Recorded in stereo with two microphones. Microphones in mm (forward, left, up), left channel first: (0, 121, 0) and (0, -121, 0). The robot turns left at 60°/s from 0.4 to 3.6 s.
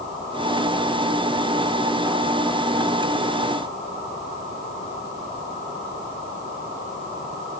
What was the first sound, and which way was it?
Only background noise.